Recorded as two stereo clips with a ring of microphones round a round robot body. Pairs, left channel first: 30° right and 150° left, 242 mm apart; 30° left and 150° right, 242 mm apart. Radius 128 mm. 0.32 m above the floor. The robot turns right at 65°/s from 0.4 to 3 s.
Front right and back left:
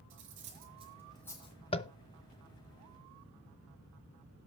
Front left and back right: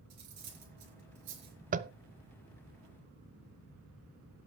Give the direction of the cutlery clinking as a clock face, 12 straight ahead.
6 o'clock.